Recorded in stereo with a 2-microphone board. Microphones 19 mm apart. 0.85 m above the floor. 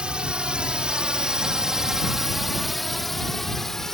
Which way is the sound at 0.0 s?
60° right (ahead or behind).